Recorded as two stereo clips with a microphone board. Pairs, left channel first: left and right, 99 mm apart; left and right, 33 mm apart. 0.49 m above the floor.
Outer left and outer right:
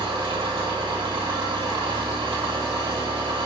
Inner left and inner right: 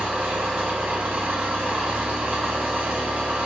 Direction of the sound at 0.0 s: 65° right (ahead or behind).